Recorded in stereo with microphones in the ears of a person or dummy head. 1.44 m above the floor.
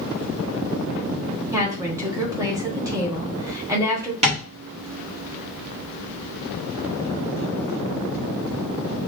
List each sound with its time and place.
1.5 s a woman speaking: 20° right (ahead or behind), 1.5 m
4.2 s tapping: 40° right (ahead or behind), 3 m